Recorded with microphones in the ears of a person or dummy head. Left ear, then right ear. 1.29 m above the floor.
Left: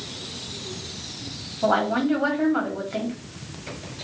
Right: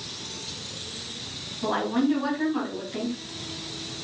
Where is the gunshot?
I don't hear a gunshot.